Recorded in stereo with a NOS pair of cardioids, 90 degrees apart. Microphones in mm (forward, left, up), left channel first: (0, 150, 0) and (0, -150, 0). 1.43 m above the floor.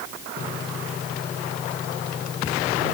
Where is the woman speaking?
No woman speaking in this recording.